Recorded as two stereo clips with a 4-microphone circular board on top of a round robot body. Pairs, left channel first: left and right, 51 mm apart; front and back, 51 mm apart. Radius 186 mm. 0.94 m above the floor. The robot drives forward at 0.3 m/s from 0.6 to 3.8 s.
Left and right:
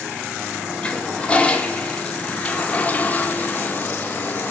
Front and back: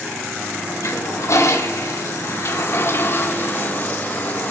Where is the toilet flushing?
20° left, 1.8 m; by 4.5 s 45° left, 1.2 m.